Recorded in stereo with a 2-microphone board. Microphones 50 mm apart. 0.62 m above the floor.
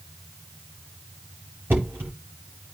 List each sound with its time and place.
1.7 s knocking: 45° right (ahead or behind), 8.5 m